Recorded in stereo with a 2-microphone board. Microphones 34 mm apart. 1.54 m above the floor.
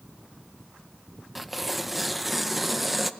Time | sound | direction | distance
1.4 | tearing paper | centre (ahead or behind) | 0.7 m